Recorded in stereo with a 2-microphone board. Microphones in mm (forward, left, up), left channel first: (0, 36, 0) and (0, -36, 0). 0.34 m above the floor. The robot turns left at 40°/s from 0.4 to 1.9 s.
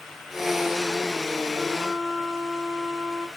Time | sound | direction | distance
1.6 | a flute | 5° left (ahead or behind) | 3.5 m